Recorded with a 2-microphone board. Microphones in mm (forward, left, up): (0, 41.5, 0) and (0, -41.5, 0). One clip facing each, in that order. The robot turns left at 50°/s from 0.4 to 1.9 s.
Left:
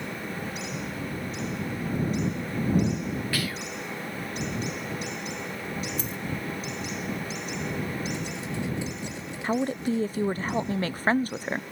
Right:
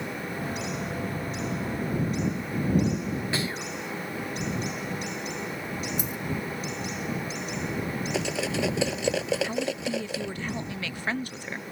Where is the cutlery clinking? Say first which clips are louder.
Right 5 dB; 75° right (ahead or behind).